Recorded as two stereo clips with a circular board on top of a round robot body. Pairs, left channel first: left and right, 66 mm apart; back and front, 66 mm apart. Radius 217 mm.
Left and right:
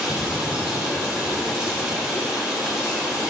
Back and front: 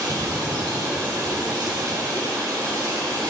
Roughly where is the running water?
Ahead.